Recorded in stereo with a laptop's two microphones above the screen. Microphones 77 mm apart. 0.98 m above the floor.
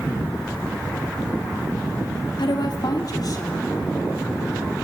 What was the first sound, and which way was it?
A woman speaking, 70° left (ahead or behind).